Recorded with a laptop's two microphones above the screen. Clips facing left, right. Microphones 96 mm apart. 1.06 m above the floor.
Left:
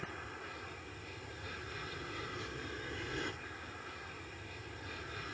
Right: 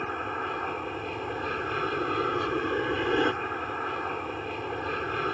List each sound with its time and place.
0.0 s an aircraft: 65° right (ahead or behind)